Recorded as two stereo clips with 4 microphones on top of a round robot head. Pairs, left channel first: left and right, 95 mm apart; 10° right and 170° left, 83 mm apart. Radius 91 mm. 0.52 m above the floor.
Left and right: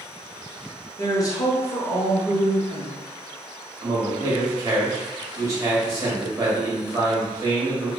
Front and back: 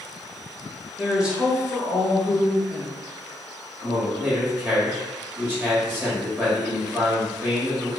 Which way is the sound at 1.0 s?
95° left.